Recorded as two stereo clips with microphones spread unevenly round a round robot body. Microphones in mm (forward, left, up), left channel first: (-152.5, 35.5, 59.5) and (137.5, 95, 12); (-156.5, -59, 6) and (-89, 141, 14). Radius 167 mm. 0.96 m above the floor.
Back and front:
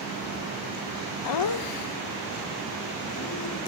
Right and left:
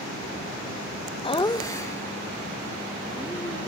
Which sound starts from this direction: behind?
Laughter, at 1.2 s.